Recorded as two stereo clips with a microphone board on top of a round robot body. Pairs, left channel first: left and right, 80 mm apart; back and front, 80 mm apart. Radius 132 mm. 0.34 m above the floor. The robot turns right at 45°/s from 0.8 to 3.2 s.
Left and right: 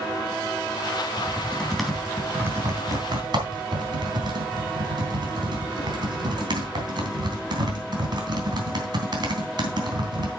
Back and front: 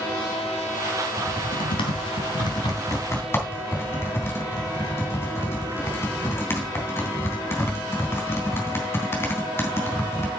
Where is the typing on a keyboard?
150° left, 3 m; by 10.3 s 120° right, 3 m.